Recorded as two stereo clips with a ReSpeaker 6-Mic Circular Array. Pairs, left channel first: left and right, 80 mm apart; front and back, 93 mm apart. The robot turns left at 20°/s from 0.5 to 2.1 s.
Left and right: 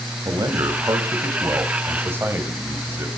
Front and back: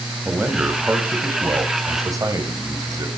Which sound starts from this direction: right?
A man speaking, at 0.2 s.